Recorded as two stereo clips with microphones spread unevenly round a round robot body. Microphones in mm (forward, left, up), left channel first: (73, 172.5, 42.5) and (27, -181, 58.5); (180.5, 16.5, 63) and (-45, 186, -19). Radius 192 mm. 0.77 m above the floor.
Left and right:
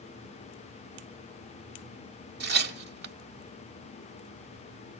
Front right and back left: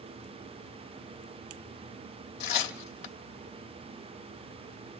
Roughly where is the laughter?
I don't hear laughter.